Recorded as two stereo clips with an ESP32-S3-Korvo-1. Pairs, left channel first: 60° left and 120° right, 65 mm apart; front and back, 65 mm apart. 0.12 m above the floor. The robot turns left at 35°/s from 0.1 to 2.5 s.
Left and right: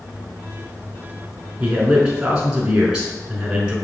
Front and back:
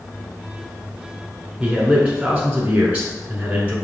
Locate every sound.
1.6 s a man speaking: 140° right, 1.1 m; by 3.8 s 170° right, 1.1 m